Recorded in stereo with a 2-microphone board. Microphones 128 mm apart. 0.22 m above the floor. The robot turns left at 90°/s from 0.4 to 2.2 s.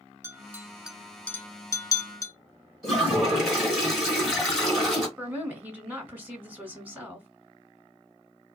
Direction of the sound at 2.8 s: 5° right (ahead or behind).